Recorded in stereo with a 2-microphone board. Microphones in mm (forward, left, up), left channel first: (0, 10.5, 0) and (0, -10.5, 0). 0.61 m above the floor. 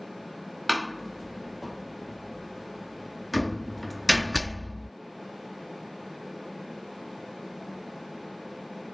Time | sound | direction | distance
0.7 | a door slam | 5° left (ahead or behind) | ?